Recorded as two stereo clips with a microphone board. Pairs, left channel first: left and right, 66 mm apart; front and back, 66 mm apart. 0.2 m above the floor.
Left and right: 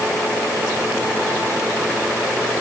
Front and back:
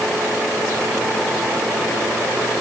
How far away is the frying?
No frying in this recording.